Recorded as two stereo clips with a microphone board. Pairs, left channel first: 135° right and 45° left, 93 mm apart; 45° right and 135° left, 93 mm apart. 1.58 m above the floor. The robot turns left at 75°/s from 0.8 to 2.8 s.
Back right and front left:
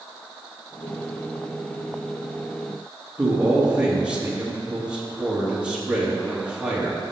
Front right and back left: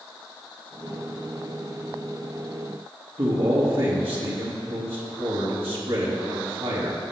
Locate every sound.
3.2 s a man speaking: 125° left, 3 m